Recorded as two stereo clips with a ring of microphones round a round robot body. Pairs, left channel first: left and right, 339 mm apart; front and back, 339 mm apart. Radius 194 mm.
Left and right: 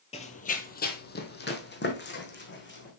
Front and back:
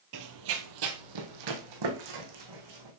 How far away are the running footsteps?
About 0.9 m.